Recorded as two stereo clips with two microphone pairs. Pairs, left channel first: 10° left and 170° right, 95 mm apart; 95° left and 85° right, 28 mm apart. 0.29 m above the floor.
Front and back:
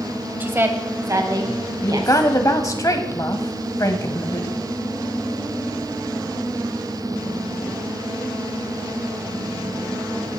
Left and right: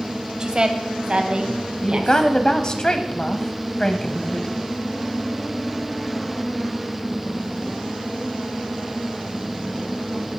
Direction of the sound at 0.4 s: 120° right.